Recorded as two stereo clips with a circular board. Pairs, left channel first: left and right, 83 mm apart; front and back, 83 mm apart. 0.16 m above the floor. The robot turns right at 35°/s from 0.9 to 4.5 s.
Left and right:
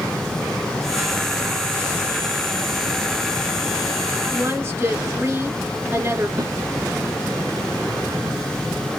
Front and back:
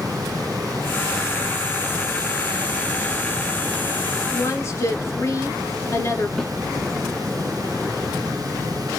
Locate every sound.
4.3 s a woman speaking: 50° right, 1.9 m; by 6.3 s 40° right, 1.9 m
6.4 s a snare drum: 75° right, 1.8 m